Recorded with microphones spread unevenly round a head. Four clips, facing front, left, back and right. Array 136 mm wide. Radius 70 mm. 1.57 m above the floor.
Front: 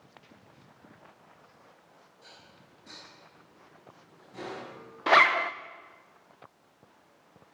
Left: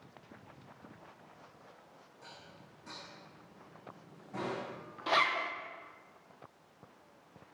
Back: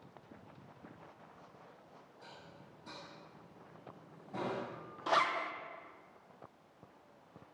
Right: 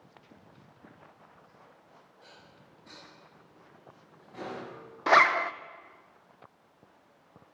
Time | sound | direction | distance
2.2 | dishes clattering | 150° left | 8.5 m
5.1 | a zipper | 40° right | 1.0 m